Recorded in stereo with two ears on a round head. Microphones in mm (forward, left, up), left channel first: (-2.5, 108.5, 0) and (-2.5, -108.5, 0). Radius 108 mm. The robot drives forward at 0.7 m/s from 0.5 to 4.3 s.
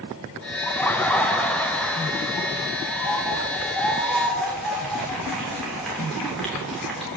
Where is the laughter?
10° left (ahead or behind), 0.7 m; by 7.1 s centre (ahead or behind), 3 m.